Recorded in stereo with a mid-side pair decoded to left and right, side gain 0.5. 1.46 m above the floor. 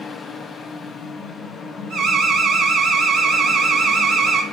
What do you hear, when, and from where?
0.0 s a fan: 45° left, 0.7 m
1.9 s an alarm: 60° right, 0.9 m